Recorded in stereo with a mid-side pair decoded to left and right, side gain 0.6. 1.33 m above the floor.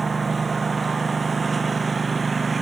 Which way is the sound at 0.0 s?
25° right.